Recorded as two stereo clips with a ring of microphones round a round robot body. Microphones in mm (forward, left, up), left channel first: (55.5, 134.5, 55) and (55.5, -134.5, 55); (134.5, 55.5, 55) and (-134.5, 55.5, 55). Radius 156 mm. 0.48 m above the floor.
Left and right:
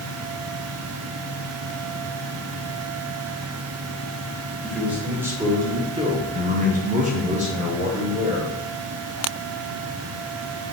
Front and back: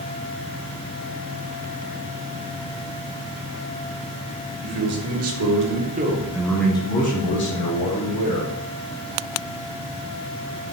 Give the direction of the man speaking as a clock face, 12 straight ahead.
6 o'clock.